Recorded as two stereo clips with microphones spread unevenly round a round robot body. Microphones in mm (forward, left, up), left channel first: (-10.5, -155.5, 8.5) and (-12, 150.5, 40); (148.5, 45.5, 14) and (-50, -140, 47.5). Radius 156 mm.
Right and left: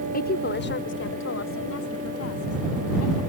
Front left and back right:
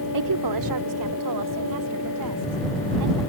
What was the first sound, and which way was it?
A woman speaking, 150° right.